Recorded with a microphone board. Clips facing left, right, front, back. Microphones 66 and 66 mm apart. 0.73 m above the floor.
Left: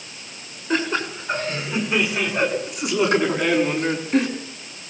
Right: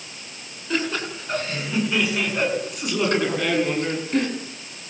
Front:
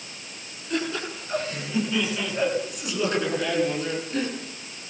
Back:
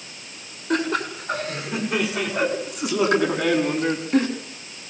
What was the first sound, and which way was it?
Laughter, 155° left.